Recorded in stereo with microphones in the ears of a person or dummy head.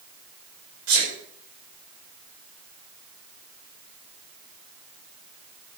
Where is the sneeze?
70° right (ahead or behind), 5 m.